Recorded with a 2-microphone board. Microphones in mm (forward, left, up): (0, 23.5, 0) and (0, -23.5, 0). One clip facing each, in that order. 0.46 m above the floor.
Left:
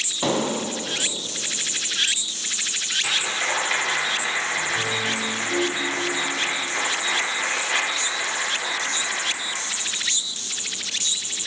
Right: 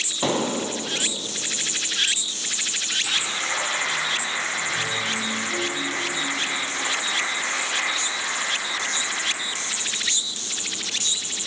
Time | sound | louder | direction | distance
0.2 | an explosion | even | 5° right (ahead or behind) | 3.5 m
3.0 | a clap | left 4 dB | 40° left (ahead or behind) | 9 m